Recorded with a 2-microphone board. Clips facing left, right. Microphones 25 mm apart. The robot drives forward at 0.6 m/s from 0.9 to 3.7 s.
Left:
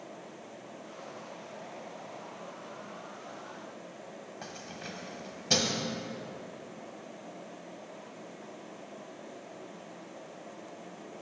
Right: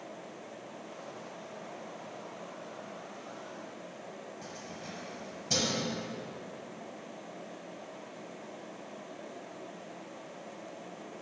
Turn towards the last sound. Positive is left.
turn(degrees=40)  # may be behind; listen again after turning